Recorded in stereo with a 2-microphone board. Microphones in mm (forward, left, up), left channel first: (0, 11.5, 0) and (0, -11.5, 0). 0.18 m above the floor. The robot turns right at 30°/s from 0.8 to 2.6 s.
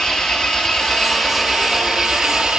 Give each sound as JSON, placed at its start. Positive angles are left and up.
{"t": 0.0, "sound": "an engine running", "azimuth_deg": 155, "distance_m": 1.8}